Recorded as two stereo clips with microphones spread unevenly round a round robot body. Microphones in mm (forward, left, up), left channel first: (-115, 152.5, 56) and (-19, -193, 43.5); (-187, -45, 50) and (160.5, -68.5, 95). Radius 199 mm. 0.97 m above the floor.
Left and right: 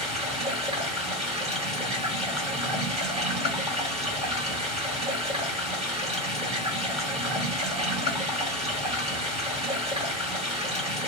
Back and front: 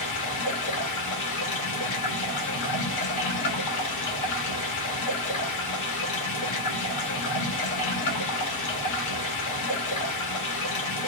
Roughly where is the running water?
Behind right.